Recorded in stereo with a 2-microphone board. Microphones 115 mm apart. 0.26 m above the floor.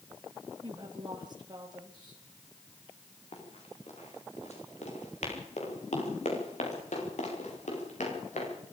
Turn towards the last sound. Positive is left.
turn(degrees=90)